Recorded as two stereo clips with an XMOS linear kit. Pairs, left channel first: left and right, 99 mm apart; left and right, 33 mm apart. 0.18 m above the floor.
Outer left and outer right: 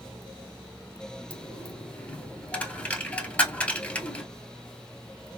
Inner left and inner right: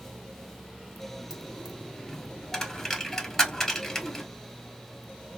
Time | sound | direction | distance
1.3 | a dropped coin | 15° left (ahead or behind) | 0.9 m